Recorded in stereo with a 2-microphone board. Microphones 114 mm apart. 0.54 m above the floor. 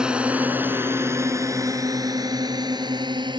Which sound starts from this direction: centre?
A drone, at 0.0 s.